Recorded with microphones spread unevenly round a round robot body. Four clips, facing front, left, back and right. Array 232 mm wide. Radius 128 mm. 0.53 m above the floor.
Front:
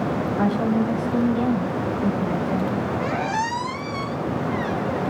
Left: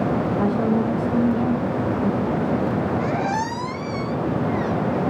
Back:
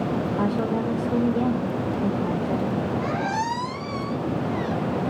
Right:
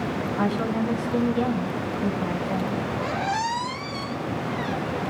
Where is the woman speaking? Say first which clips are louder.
Left 2 dB, front 5 dB; straight behind, 5.5 m.